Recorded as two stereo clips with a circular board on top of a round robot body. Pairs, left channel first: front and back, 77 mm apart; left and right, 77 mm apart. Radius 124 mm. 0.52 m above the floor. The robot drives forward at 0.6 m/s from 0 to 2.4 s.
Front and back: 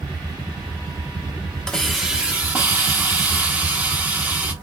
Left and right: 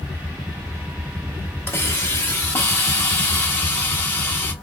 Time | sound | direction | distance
1.7 | a hiss | 70° left | 0.9 m